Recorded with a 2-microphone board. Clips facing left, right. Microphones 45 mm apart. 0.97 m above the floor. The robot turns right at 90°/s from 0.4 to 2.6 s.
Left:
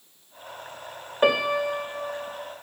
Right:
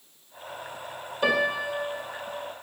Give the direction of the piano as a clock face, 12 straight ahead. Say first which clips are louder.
Left 3 dB; 11 o'clock.